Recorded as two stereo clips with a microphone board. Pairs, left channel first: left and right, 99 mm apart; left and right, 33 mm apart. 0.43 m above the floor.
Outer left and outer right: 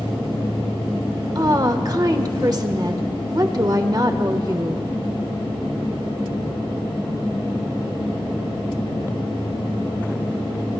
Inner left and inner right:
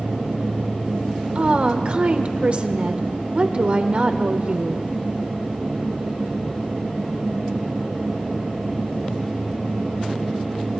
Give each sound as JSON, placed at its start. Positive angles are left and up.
{"t": 1.4, "sound": "a woman speaking", "side_deg": -40, "distance_m": 1.0}